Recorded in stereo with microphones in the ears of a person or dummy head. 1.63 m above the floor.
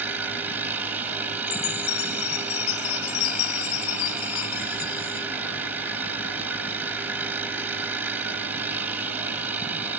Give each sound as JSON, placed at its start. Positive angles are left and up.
{"t": 0.0, "sound": "a machine running", "side_deg": -10}
{"t": 1.5, "sound": "a chime", "side_deg": 90}